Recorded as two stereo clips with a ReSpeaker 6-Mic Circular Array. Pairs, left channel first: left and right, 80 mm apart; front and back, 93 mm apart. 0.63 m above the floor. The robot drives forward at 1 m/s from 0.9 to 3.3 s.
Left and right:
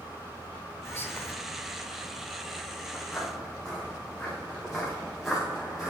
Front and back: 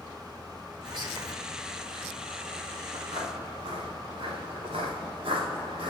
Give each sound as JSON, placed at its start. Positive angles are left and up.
{"t": 0.8, "sound": "whispering", "azimuth_deg": 145, "distance_m": 1.5}
{"t": 2.9, "sound": "footsteps", "azimuth_deg": 165, "distance_m": 6.0}